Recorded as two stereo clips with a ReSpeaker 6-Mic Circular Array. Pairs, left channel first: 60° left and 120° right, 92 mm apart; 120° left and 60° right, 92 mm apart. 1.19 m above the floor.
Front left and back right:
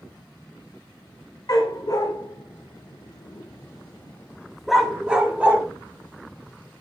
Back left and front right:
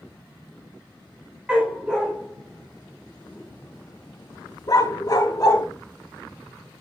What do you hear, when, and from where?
1.5 s a dog barking: 15° left, 2.0 m; by 5.7 s 170° left, 1.6 m